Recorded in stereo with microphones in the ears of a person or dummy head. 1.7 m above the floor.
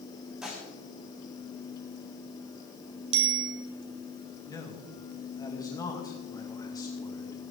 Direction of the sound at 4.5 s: 25° left (ahead or behind).